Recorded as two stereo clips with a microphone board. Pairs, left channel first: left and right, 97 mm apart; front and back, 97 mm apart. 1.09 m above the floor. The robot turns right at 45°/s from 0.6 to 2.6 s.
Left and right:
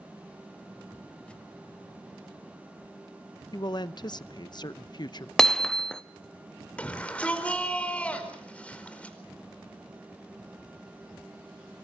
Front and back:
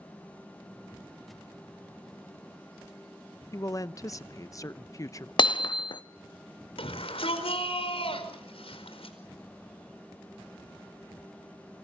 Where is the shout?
15° left, 4.5 m.